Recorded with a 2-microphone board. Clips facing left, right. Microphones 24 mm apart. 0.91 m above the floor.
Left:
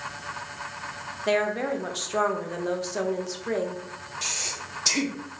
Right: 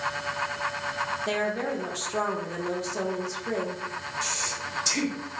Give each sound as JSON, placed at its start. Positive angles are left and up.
{"t": 1.3, "sound": "a woman speaking", "side_deg": 25, "distance_m": 0.5}
{"t": 4.2, "sound": "breathing", "side_deg": 35, "distance_m": 0.7}